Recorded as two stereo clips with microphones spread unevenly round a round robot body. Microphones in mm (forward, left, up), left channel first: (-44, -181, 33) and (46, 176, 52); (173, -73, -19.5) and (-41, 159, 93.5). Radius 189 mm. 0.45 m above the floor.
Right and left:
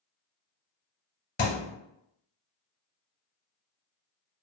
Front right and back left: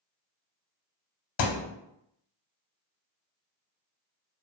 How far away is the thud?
About 0.6 m.